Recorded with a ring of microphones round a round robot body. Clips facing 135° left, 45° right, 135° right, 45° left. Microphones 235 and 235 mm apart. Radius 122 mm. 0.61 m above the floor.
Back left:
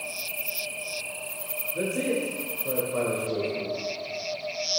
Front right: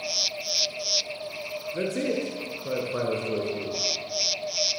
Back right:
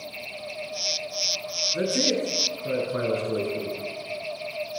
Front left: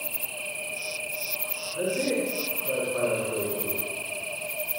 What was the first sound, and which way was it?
A man speaking, 115° right.